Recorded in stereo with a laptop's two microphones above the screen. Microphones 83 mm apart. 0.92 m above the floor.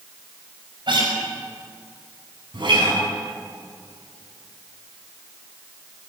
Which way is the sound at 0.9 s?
70° right (ahead or behind).